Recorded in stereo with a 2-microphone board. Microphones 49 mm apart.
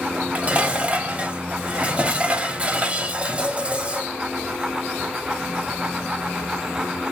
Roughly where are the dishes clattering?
Right.